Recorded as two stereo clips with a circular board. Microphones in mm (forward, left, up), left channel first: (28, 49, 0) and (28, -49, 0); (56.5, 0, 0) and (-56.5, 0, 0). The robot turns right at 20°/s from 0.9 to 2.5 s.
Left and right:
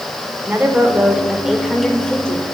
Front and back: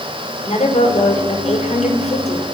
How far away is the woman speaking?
About 5.5 m.